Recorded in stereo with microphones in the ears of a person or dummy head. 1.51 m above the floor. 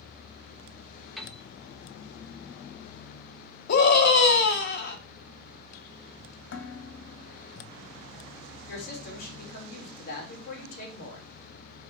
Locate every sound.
1.2 s a piano: centre (ahead or behind), 1.4 m
3.7 s a scream: 55° left (ahead or behind), 1.5 m
6.5 s dishes clattering: 65° left (ahead or behind), 2 m
8.7 s a woman speaking: 45° left (ahead or behind), 3 m